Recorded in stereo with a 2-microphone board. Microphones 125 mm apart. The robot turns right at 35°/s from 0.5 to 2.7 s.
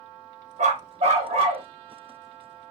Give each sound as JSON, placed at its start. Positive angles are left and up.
{"t": 0.6, "sound": "a dog barking", "azimuth_deg": -80, "distance_m": 1.2}